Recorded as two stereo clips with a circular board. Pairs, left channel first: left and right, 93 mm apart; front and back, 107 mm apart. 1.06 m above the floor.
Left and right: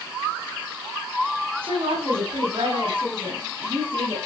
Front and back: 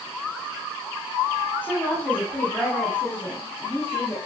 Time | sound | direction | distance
1.6 | a woman speaking | 75° right | 9.5 m